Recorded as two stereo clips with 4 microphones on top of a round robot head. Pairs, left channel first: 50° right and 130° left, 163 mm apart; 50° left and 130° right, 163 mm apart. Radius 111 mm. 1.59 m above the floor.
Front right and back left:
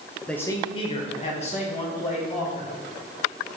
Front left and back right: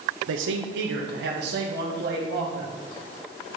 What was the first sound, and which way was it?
A man speaking, 140° right.